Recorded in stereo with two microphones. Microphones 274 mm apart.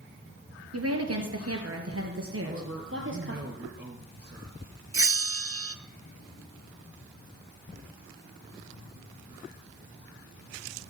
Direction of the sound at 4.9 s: 50° right (ahead or behind).